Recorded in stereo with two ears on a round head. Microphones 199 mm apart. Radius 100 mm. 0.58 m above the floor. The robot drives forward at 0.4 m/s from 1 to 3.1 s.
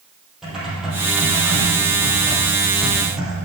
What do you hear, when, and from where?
0.4 s typing on a keyboard: centre (ahead or behind), 4 m